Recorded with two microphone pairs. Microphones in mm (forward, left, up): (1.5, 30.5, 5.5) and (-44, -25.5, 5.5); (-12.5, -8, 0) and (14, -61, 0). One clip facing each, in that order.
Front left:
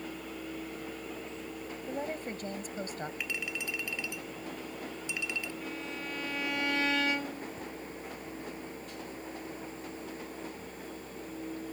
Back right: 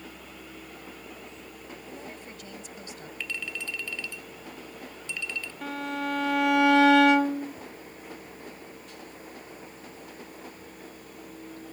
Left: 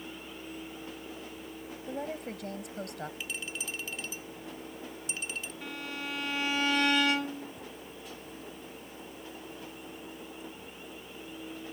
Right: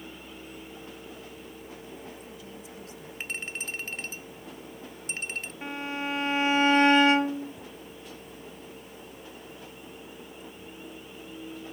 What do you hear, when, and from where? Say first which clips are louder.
1.9 s a woman speaking: front left 9 dB, left 6 dB; 95° left
3.2 s a clink: back right 1 dB, right 3 dB; 25° right
5.6 s a violin: back right 8 dB, right 8 dB; 120° right